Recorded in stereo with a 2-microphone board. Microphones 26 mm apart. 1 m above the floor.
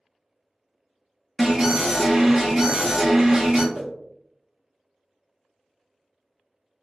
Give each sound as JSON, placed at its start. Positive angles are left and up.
{"t": 1.4, "sound": "an alarm", "side_deg": -20, "distance_m": 0.7}
{"t": 3.7, "sound": "a whoosh", "side_deg": -15, "distance_m": 0.9}